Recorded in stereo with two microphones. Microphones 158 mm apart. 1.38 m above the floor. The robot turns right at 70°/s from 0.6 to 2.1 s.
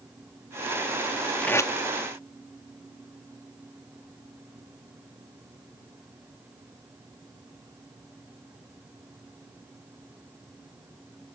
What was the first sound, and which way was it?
Tape being pulled, 5° left (ahead or behind).